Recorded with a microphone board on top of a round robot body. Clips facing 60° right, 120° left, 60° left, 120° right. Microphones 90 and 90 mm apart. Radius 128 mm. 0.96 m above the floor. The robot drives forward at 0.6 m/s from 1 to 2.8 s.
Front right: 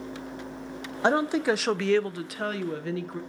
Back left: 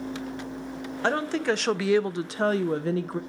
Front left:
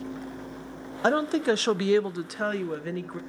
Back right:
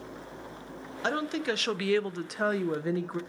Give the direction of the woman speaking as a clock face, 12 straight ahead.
12 o'clock.